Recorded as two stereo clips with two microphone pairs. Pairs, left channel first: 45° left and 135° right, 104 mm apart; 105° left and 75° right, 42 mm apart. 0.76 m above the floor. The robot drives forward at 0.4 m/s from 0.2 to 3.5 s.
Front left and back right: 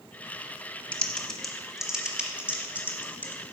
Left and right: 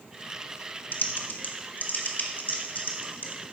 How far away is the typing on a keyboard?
About 0.8 m.